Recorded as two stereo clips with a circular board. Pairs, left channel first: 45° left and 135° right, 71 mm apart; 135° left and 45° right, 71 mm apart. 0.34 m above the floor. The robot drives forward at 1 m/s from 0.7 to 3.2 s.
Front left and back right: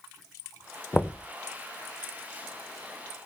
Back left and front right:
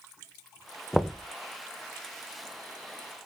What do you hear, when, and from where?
0.9 s knocking: 45° left, 0.5 m; by 1.3 s 135° left, 0.5 m